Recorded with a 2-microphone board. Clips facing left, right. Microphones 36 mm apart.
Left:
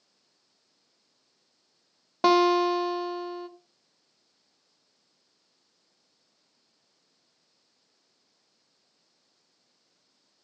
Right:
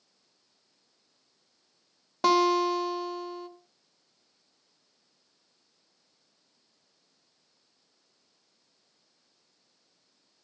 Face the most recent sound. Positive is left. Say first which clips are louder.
# left 2 dB
turn(degrees=15)  # may be behind; listen again after turning